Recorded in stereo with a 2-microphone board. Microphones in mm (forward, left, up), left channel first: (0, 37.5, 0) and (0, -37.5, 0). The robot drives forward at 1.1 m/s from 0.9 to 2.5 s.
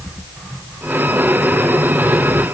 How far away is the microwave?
No microwave in this recording.